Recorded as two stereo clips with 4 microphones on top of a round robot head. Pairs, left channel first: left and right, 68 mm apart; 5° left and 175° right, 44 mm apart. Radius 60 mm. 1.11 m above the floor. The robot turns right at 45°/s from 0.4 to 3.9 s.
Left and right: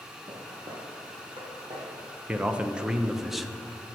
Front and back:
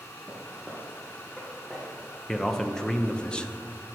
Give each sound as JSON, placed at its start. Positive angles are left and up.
{"t": 0.3, "sound": "footsteps", "azimuth_deg": -100, "distance_m": 1.4}
{"t": 2.3, "sound": "a man speaking", "azimuth_deg": -60, "distance_m": 0.7}